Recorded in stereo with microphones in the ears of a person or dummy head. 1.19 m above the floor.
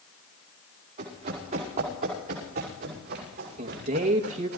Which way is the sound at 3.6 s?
45° right (ahead or behind).